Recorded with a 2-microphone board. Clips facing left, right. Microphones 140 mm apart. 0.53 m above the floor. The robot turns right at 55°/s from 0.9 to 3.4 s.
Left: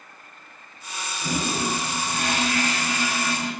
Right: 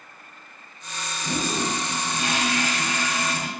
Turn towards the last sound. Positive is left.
turn(degrees=-175)